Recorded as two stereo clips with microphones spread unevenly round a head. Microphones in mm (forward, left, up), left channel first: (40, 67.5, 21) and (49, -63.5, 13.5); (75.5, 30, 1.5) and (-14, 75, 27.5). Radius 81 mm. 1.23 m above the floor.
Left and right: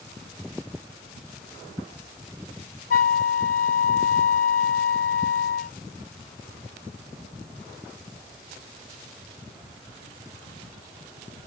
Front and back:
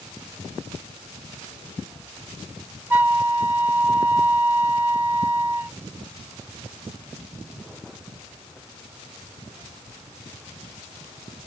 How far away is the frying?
No frying in this recording.